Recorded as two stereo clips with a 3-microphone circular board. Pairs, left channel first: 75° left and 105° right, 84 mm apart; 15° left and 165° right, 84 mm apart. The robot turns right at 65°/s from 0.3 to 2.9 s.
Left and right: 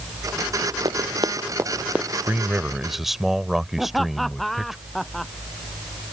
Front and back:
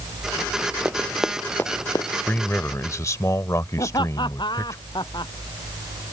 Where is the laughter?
15° right.